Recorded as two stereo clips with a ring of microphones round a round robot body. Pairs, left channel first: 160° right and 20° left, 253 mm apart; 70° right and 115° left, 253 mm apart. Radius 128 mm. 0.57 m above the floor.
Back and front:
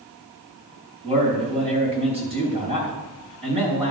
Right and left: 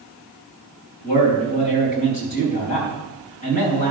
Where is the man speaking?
45° right, 4 m.